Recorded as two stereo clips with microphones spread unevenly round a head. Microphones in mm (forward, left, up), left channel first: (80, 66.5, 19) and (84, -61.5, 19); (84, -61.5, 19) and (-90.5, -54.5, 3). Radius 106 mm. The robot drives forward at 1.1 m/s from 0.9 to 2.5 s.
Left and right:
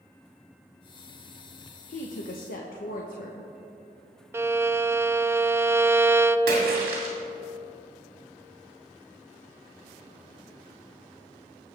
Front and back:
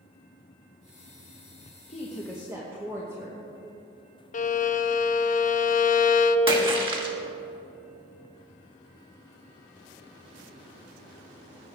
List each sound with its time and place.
1.9 s a woman speaking: 60° left, 1.0 m; by 3.5 s 100° left, 0.9 m
4.3 s a violin: 25° right, 0.5 m
6.5 s a splash: 120° right, 2 m